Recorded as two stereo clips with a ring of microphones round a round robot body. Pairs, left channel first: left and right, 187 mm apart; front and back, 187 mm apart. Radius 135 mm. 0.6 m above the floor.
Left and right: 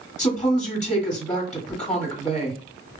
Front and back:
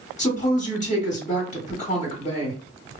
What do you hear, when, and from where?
0.2 s a woman speaking: 45° left, 1.7 m